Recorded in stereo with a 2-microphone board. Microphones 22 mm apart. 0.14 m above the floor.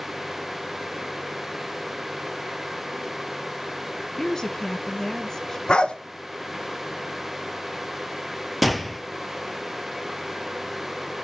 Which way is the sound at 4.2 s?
25° left (ahead or behind).